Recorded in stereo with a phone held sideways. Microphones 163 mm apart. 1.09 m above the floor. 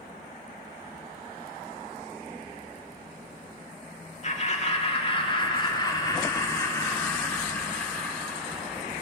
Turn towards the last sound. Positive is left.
turn(degrees=0)  # may be behind; listen again after turning